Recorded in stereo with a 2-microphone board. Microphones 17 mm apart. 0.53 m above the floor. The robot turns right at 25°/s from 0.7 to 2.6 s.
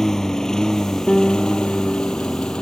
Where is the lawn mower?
30° left (ahead or behind); by 2.6 s 75° left (ahead or behind).